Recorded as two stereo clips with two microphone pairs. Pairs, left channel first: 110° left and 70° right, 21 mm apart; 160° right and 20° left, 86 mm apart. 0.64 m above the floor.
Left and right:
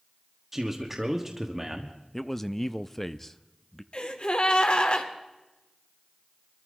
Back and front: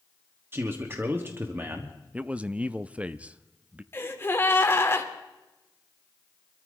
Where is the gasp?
140° left, 1.6 m.